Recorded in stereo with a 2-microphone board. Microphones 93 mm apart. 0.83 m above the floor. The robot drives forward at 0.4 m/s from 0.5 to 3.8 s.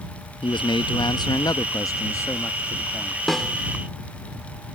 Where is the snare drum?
Centre (ahead or behind).